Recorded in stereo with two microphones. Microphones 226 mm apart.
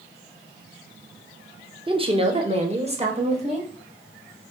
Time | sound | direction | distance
1.9 | a woman speaking | 20° right (ahead or behind) | 0.7 m